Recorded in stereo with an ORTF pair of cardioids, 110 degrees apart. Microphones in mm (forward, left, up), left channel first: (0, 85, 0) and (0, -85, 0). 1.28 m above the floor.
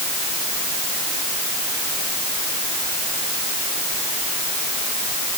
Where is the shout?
I don't hear a shout.